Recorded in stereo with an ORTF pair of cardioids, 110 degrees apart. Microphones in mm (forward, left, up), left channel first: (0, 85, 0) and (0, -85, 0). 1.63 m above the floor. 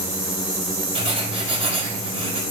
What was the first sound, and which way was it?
Writing, 35° right.